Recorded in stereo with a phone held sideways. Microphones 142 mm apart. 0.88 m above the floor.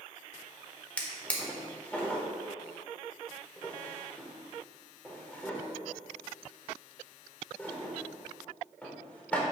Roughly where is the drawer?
Centre.